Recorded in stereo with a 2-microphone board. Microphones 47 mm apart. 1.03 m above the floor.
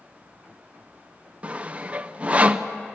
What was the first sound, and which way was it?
Sawing, 25° right (ahead or behind).